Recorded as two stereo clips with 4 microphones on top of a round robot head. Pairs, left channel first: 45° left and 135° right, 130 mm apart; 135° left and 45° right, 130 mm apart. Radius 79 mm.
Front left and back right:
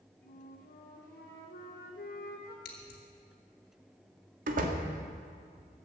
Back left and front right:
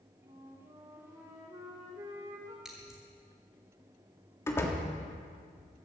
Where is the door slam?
155° right, 1.6 m.